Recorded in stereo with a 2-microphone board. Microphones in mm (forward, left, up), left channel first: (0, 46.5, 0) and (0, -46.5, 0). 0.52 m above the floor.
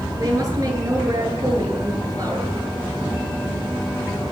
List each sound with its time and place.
0.2 s a woman speaking: 40° right (ahead or behind), 8 m